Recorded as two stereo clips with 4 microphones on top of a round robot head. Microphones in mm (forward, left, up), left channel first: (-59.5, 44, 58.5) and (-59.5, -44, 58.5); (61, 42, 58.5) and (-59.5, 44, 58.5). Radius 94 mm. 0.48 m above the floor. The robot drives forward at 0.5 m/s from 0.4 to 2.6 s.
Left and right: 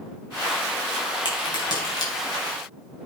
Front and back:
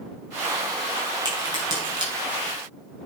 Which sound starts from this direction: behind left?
A crack, at 1.2 s.